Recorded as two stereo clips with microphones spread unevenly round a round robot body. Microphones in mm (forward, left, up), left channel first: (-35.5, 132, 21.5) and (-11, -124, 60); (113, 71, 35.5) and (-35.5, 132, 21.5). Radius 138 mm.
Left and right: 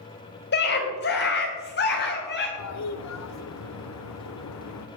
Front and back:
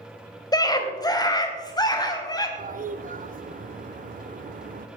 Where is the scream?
45° left, 3.5 m.